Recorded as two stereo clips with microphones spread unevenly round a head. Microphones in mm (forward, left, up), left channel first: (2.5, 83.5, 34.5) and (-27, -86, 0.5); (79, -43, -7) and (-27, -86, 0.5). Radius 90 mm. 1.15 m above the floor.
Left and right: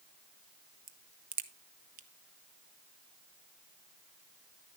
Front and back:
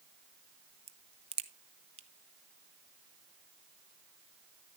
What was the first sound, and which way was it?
A crack, 130° right.